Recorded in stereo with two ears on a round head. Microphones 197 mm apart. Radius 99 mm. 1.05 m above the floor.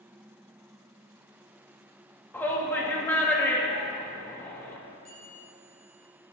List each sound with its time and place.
2.3 s a shout: 10° left (ahead or behind), 1.4 m
5.0 s a bell: 65° right (ahead or behind), 2.5 m